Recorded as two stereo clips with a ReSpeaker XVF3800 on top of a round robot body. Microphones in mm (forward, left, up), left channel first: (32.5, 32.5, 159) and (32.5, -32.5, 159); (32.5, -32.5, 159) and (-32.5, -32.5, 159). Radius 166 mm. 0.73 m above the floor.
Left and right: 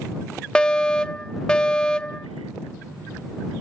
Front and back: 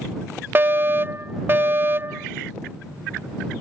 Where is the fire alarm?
155° left.